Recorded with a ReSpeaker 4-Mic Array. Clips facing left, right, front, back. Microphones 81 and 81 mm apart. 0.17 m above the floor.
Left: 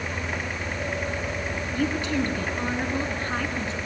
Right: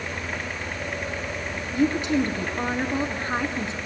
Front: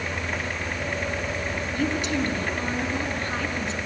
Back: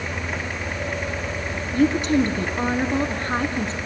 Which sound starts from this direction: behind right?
A woman speaking, at 1.7 s.